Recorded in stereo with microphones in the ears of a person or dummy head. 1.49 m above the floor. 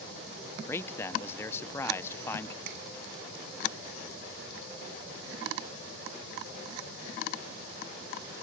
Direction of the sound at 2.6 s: 55° right (ahead or behind).